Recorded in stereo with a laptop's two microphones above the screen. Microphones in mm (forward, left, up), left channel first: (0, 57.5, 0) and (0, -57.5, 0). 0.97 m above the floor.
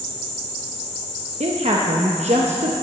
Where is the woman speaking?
65° right (ahead or behind), 0.9 m.